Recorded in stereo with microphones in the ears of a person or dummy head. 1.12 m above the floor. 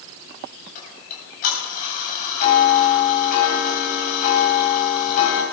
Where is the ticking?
45° left (ahead or behind), 7.5 m.